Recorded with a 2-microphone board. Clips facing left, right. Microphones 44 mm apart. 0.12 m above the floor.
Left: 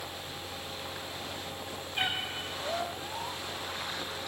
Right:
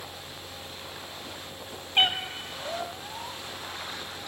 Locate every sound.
1.9 s a cat meowing: 70° right (ahead or behind), 1.0 m